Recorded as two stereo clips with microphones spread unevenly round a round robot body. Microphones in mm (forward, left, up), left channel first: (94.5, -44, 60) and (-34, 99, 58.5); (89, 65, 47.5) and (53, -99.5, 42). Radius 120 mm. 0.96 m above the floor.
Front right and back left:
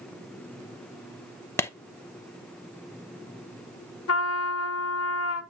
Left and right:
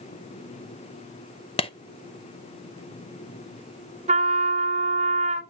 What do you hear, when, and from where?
1.6 s a clap: 25° left, 0.8 m
4.1 s a trumpet: 55° right, 1.6 m